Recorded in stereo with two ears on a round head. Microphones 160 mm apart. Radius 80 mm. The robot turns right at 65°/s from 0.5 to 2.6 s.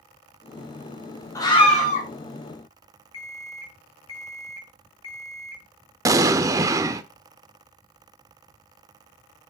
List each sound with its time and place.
1.4 s a scream: 20° left, 3 m; by 2.1 s 65° left, 3 m
3.1 s an alarm clock: 80° left, 2 m
6.0 s an explosion: 20° right (ahead or behind), 0.6 m